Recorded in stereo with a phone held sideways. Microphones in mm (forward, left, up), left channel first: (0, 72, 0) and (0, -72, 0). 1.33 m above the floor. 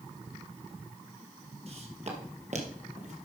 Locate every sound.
1.7 s footsteps: 45° right (ahead or behind), 2 m; by 3.2 s 55° right (ahead or behind), 2.5 m